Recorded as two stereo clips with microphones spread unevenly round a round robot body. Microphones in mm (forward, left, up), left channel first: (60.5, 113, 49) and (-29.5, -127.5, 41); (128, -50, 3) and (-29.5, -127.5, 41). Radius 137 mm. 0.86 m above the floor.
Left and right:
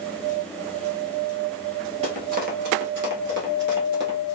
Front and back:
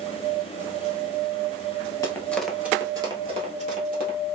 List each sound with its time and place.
2.0 s running footsteps: 55° right, 1.0 m; by 4.2 s 165° right, 1.5 m